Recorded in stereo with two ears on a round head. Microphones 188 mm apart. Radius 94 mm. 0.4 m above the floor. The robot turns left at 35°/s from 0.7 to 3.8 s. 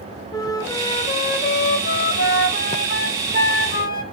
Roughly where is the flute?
Behind.